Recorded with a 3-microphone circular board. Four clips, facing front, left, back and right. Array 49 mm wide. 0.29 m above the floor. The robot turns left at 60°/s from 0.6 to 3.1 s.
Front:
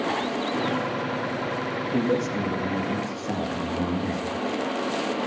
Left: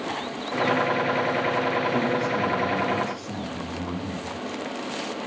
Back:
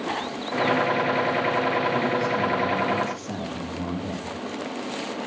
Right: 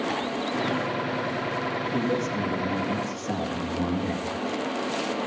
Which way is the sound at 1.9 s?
35° left.